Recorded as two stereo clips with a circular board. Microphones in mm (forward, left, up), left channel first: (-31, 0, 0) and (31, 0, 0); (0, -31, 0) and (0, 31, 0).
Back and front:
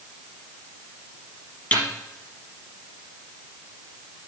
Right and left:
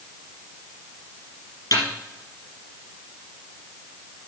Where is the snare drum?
110° right, 4 m.